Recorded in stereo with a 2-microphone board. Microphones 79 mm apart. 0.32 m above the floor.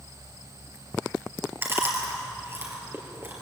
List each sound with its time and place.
1.6 s chewing: 30° right (ahead or behind), 3.5 m